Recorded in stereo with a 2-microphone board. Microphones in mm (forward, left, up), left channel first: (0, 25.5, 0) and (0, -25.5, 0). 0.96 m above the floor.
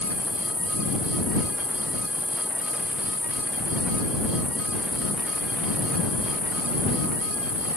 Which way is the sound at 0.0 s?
20° left (ahead or behind).